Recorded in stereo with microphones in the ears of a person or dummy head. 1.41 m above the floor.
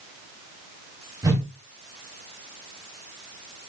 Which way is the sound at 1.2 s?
15° right (ahead or behind).